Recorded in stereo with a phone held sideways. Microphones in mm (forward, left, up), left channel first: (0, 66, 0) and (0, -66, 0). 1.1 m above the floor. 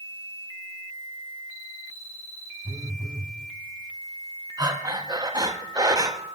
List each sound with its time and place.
2.6 s a phone buzzing: 30° right (ahead or behind), 0.9 m
4.6 s breathing: 30° right (ahead or behind), 0.7 m